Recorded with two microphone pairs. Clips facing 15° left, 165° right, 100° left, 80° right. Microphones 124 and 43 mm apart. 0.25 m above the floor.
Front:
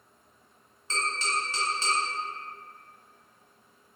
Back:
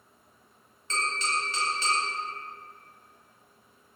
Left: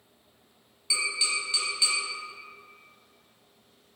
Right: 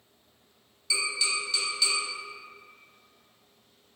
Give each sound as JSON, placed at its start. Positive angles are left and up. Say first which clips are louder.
{"t": 0.9, "sound": "tapping", "louder": "even, even", "azimuth_deg": 40, "distance_m": 1.8}